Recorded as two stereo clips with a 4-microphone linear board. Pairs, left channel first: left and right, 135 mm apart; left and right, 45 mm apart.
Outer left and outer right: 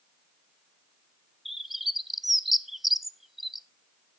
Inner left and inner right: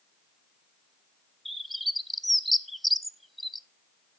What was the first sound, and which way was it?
A bird, centre (ahead or behind).